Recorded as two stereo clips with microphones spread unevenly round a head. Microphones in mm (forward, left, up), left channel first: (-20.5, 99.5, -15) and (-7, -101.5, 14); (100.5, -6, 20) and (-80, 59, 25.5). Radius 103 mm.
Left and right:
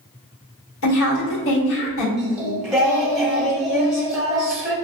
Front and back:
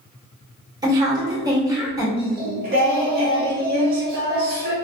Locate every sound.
0.8 s a woman speaking: 90° left, 2.0 m
2.2 s singing: 165° right, 1.0 m